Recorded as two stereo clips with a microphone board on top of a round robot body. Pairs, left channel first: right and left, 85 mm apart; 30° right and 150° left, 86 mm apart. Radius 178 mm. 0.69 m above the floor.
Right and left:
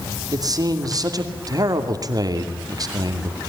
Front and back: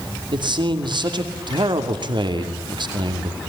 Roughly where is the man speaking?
Behind left.